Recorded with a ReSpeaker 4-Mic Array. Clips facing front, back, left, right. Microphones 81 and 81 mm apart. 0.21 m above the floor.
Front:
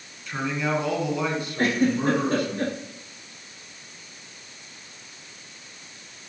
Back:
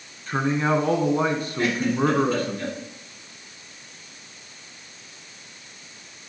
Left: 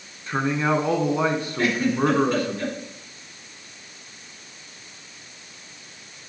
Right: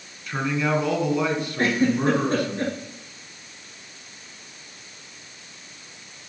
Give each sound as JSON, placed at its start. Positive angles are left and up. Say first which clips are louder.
{"t": 0.3, "sound": "a man speaking", "louder": "back 4 dB, left 2 dB", "azimuth_deg": 140, "distance_m": 1.9}
{"t": 1.6, "sound": "a giggle", "louder": "front 1 dB, right 1 dB", "azimuth_deg": -40, "distance_m": 3.5}